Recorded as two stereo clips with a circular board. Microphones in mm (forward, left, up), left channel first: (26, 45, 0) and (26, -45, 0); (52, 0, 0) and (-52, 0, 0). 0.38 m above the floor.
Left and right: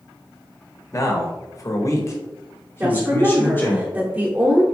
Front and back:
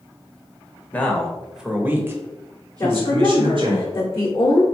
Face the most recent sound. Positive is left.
turn(degrees=-35)